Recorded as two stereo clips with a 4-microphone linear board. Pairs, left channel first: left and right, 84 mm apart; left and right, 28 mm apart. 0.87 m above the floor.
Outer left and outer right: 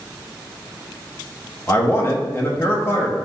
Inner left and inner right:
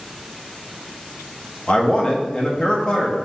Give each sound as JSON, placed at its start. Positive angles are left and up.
{"t": 1.7, "sound": "a man speaking", "side_deg": 25, "distance_m": 0.9}